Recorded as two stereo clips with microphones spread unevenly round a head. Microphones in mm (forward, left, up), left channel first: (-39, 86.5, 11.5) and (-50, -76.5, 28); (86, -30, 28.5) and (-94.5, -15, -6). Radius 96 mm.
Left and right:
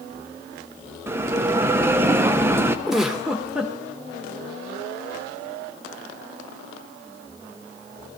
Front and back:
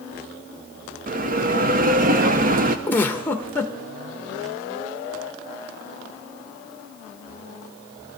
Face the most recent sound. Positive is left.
turn(degrees=-25)